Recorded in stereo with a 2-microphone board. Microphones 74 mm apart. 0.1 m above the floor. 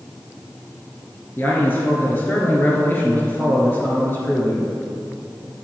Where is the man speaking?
30° left (ahead or behind), 1.3 m.